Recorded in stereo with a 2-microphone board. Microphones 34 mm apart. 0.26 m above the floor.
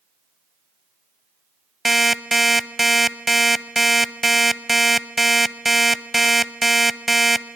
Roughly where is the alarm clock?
Centre.